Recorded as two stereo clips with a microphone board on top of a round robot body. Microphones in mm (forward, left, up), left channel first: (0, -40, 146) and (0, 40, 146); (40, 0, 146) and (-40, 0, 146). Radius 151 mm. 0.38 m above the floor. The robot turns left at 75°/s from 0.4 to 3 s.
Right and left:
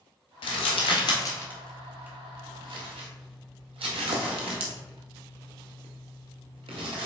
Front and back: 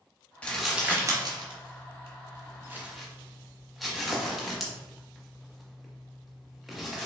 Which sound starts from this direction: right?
Crumpling, at 0.4 s.